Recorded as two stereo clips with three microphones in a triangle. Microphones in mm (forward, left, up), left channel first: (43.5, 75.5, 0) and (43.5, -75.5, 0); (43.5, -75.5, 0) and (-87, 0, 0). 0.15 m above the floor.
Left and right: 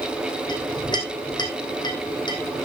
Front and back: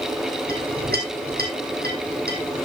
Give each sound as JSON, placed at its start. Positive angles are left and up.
{"t": 0.5, "sound": "a clink", "azimuth_deg": 150, "distance_m": 3.5}